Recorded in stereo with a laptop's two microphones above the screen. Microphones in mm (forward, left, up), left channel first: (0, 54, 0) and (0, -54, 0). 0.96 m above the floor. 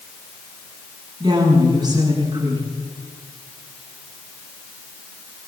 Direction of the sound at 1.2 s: 40° right (ahead or behind).